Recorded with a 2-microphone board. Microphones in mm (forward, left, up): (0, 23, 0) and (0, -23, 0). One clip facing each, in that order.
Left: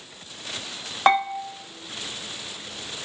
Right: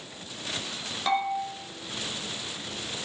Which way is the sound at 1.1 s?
45° left (ahead or behind).